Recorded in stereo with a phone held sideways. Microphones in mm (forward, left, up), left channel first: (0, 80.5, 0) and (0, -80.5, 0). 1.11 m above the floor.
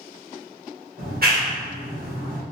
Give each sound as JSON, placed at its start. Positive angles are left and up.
{"t": 1.0, "sound": "a clap", "side_deg": -70, "distance_m": 1.1}